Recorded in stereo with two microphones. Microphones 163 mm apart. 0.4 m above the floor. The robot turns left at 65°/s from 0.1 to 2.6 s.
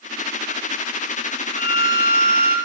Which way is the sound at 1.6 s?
100° left.